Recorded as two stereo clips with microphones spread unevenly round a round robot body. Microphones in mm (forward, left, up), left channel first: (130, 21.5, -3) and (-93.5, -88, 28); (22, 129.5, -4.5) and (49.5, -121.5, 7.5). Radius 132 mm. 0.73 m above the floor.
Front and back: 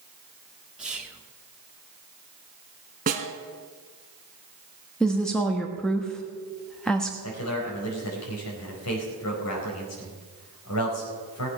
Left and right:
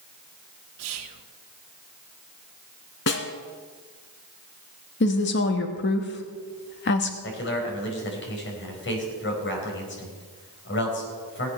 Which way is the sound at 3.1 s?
150° left.